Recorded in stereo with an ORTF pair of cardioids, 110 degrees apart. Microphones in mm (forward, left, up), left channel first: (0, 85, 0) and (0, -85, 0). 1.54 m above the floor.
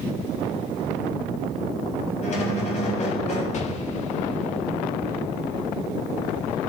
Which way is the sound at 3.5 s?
45° left.